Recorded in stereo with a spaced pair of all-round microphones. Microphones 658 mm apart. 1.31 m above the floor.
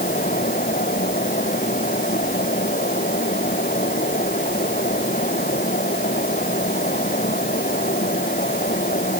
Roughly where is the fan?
Centre.